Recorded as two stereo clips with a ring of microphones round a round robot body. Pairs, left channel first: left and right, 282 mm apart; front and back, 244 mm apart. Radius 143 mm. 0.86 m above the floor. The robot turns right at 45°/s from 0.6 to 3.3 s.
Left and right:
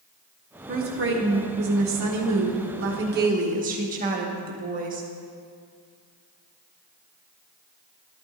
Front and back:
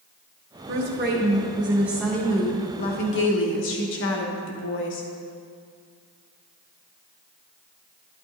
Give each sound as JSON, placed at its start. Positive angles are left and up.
{"t": 0.7, "sound": "a woman speaking", "azimuth_deg": -150, "distance_m": 1.4}